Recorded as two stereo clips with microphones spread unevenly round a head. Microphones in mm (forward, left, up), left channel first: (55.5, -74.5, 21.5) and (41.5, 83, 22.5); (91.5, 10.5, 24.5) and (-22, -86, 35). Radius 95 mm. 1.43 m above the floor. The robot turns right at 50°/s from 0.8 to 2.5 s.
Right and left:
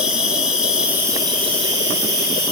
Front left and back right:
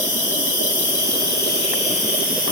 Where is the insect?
10° left, 2 m; by 2.5 s 95° left, 2 m.